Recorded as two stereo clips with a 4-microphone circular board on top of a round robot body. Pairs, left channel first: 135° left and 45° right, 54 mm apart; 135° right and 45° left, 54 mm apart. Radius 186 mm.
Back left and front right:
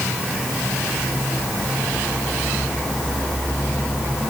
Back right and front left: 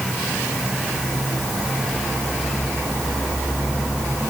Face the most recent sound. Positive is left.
No sound to turn to.